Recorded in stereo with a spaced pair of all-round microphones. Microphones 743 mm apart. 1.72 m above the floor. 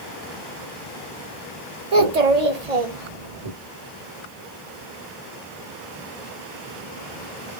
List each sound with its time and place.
1.9 s a child speaking: 55° right (ahead or behind), 1.3 m; by 3.5 s 45° right (ahead or behind), 1.6 m